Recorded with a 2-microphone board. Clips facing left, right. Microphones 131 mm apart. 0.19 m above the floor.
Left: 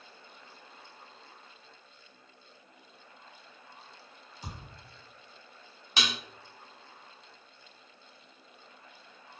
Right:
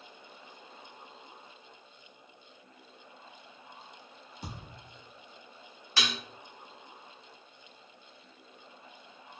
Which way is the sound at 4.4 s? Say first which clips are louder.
Right 1 dB; 60° right (ahead or behind).